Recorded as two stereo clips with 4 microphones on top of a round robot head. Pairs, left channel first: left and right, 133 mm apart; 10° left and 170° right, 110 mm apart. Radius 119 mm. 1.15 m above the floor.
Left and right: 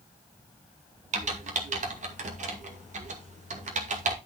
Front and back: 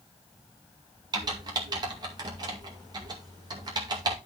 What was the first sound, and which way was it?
Typing on a keyboard, 115° right.